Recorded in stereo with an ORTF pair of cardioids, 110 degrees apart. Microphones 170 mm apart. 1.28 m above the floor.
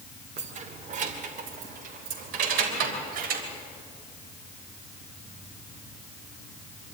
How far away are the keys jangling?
About 2 m.